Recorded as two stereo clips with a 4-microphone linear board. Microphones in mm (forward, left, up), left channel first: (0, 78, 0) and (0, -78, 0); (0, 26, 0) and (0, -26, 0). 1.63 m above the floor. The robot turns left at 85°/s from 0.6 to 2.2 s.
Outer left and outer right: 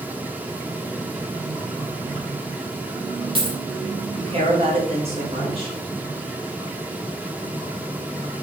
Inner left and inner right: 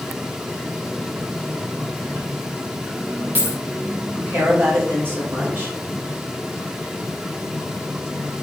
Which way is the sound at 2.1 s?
40° right (ahead or behind).